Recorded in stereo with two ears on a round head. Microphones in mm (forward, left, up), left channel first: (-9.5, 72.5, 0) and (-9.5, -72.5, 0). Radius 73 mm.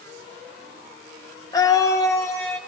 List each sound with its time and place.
1.5 s a scream: 20° left (ahead or behind), 0.6 m; by 2.6 s 15° left (ahead or behind), 0.9 m